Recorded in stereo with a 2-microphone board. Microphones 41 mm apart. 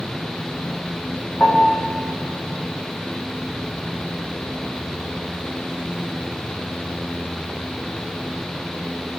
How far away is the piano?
About 5 m.